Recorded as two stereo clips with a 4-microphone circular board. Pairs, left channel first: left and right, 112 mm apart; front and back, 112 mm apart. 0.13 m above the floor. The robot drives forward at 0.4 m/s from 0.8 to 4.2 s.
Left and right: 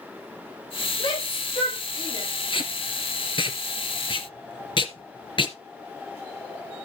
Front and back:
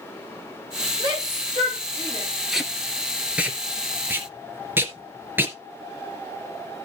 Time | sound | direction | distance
1.0 | a shout | 130° left | 6.5 m
2.5 | tape being pulled | 90° left | 2 m